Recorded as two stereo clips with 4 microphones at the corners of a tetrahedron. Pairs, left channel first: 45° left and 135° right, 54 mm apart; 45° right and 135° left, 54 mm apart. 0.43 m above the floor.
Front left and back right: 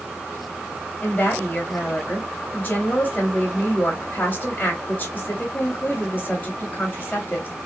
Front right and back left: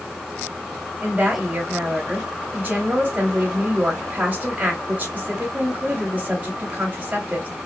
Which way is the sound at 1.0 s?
90° left.